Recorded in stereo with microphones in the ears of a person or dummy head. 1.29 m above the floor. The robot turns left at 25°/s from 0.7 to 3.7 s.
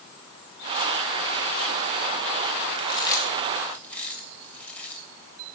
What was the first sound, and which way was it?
Chewing, 35° left (ahead or behind).